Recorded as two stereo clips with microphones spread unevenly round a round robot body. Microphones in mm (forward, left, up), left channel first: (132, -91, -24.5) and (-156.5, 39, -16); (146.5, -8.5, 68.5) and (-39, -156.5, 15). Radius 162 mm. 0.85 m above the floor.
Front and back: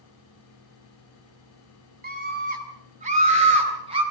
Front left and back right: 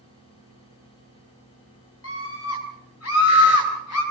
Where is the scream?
90° left, 5.5 m; by 4.0 s 80° left, 6.5 m.